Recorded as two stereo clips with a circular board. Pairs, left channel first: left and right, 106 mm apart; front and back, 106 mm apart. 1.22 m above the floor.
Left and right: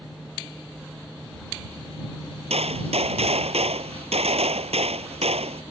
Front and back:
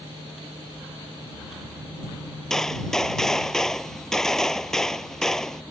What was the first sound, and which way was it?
A gunshot, 85° right.